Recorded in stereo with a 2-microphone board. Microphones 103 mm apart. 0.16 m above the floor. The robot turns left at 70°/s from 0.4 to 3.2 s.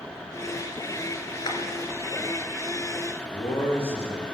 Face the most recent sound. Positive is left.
turn(degrees=75)  # may be behind; listen again after turning